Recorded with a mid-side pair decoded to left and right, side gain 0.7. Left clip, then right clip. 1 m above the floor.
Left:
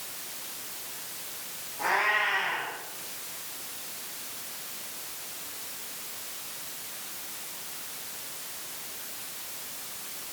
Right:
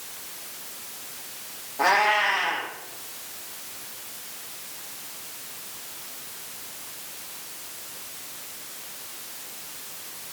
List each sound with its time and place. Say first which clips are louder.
1.8 s a cat meowing: right 5 dB; 60° right, 5.5 m